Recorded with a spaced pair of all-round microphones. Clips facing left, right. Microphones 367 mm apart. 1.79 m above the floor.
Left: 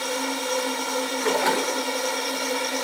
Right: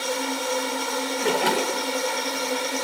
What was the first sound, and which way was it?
A splash, 45° right (ahead or behind).